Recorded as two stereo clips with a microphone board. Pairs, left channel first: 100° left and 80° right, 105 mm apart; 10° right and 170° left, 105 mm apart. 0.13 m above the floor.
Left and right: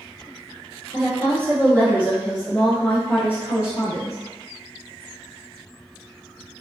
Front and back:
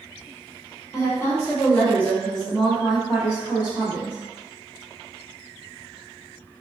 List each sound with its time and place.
0.9 s a woman speaking: 45° right, 1.7 m; by 4.2 s 120° left, 1.7 m